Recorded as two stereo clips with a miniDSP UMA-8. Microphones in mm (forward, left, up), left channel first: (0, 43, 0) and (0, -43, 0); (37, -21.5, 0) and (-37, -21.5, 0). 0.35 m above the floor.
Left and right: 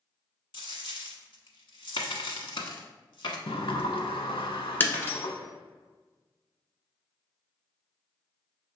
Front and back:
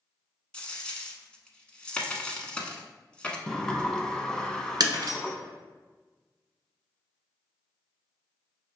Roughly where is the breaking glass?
Behind.